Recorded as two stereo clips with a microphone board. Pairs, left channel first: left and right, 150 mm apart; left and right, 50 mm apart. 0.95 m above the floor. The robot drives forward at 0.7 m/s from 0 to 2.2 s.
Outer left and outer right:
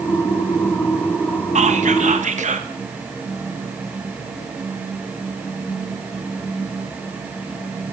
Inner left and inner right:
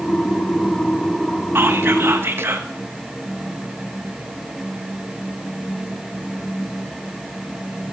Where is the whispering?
50° right (ahead or behind), 1.2 m; by 2.7 s 55° right (ahead or behind), 1.2 m.